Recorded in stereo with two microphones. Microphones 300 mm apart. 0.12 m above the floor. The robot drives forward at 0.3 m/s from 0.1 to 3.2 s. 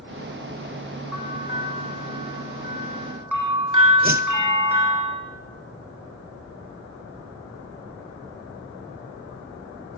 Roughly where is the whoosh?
Right.